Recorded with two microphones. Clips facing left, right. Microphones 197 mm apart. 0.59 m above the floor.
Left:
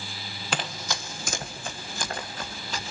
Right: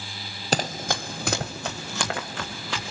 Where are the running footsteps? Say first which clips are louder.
Right 6 dB; 40° right (ahead or behind), 1.1 m; by 2.9 s 80° right, 3.5 m.